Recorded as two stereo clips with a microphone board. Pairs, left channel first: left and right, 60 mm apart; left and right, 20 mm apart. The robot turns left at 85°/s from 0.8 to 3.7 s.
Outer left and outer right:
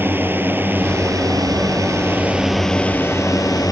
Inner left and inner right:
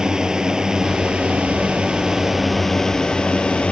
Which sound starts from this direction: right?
A drone, at 0.0 s.